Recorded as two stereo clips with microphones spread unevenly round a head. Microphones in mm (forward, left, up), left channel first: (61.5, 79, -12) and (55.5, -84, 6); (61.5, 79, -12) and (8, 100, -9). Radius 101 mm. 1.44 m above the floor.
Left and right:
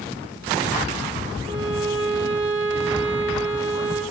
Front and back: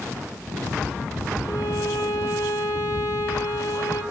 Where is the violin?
40° right, 2.5 m.